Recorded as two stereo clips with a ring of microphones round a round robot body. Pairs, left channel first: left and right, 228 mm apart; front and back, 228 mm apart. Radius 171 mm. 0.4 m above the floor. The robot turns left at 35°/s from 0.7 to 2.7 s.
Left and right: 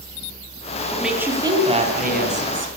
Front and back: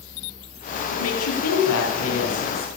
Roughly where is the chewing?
I don't hear chewing.